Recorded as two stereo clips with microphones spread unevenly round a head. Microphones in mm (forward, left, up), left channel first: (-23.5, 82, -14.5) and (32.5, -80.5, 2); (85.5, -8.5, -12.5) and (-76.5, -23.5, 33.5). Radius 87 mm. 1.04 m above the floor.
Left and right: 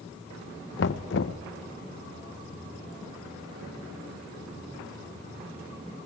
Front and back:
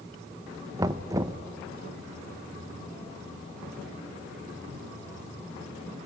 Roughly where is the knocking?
Left.